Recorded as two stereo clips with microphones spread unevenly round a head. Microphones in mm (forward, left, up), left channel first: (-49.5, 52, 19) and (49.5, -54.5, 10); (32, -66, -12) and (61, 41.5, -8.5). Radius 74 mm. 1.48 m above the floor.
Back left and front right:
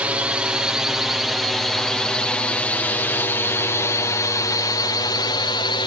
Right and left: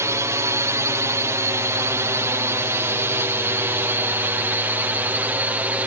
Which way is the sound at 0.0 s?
30° left.